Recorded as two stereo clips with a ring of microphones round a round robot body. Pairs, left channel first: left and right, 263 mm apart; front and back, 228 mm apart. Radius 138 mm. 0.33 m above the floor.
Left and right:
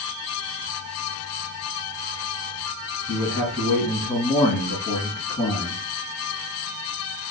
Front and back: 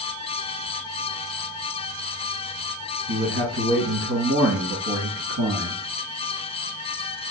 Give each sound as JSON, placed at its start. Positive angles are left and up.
{"t": 3.1, "sound": "a man speaking", "azimuth_deg": 170, "distance_m": 1.8}